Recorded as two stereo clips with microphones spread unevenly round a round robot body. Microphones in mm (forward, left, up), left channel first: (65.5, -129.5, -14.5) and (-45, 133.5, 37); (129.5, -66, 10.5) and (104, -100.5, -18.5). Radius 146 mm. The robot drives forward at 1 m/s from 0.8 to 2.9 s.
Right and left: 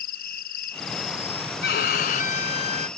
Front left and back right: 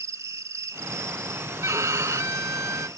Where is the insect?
130° right; by 3.0 s 155° right.